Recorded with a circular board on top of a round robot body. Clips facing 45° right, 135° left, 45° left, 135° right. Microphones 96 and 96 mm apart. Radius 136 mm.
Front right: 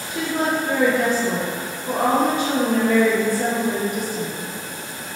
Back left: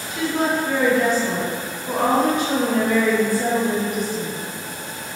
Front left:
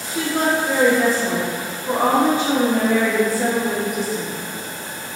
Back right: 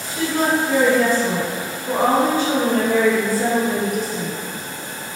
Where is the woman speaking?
15° right, 1.1 m.